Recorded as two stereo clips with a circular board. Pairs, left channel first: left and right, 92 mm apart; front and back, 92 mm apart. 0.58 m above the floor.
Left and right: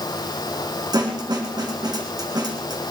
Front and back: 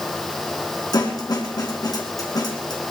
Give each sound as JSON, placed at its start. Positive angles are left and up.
{"t": 0.9, "sound": "a snare drum", "azimuth_deg": -45, "distance_m": 2.5}